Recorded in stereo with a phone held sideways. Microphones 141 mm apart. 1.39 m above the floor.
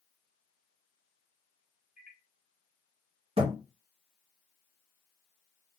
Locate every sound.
2.0 s a microwave: 65° left (ahead or behind), 1.2 m
3.4 s a thud: 40° right (ahead or behind), 1.0 m